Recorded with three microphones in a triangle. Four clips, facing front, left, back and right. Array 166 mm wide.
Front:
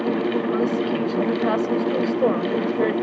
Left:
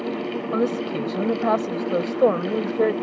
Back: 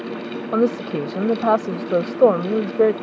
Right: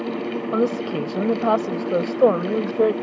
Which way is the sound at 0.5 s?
165° right.